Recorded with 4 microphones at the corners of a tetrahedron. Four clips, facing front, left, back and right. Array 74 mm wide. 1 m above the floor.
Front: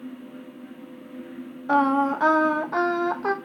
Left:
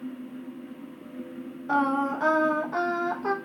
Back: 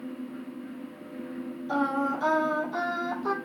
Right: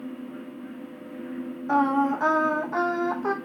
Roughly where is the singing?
Ahead.